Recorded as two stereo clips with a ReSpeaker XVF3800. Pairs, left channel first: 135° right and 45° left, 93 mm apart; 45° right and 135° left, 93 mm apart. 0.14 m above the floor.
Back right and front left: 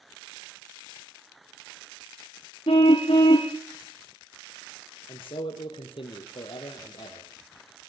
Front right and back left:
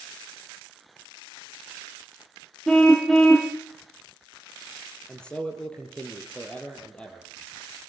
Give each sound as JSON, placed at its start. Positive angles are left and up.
{"t": 2.7, "sound": "a car horn", "azimuth_deg": -130, "distance_m": 2.5}
{"t": 5.1, "sound": "a man speaking", "azimuth_deg": -125, "distance_m": 3.5}